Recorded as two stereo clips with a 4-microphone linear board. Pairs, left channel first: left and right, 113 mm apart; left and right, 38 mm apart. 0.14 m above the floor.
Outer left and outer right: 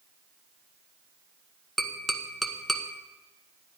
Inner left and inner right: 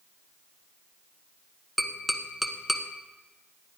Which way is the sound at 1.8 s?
Centre (ahead or behind).